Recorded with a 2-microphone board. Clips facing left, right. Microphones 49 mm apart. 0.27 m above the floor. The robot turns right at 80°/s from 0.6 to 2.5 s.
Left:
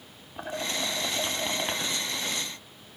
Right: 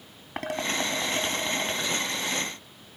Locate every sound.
0.4 s dishes clattering: 70° right (ahead or behind), 3.5 m; by 1.8 s 25° left (ahead or behind), 3.5 m